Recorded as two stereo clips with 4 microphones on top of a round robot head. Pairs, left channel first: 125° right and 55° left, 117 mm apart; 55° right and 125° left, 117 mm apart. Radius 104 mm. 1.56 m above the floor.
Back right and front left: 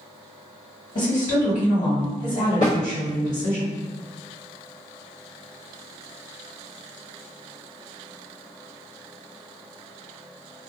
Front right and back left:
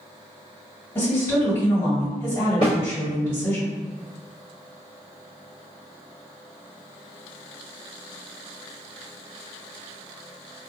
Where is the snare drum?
100° right, 1.2 m.